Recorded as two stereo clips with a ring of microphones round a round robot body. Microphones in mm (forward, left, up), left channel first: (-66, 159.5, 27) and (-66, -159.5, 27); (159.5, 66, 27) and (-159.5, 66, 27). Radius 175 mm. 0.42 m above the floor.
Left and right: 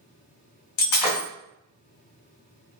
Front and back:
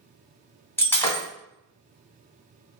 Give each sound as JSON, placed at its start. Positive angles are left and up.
{"t": 0.8, "sound": "breaking glass", "azimuth_deg": 85, "distance_m": 1.6}